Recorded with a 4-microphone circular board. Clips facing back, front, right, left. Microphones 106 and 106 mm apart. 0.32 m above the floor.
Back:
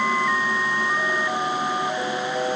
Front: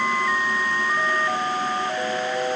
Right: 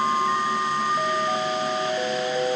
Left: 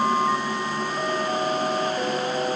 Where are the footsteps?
No footsteps in this recording.